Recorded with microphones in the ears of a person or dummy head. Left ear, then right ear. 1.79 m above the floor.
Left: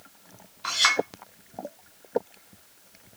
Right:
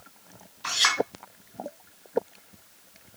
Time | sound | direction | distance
0.6 | a clink | centre (ahead or behind) | 2 m